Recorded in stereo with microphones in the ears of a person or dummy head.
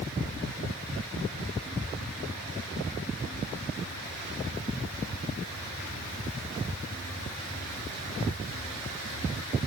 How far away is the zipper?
No zipper in this recording.